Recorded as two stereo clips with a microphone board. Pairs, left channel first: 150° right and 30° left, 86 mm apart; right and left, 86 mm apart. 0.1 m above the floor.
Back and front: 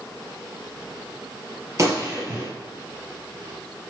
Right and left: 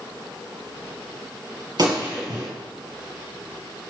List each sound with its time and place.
1.8 s a gunshot: 70° left, 3 m